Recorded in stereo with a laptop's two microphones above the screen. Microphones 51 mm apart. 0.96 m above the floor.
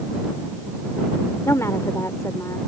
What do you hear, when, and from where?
1.4 s a woman speaking: 70° left (ahead or behind)